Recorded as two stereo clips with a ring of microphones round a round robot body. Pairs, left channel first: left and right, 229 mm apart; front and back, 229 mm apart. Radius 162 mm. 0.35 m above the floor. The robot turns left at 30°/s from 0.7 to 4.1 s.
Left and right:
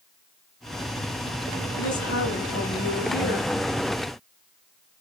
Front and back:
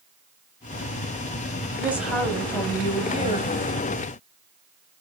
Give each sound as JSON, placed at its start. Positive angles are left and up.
{"t": 1.8, "sound": "a woman speaking", "azimuth_deg": 100, "distance_m": 2.5}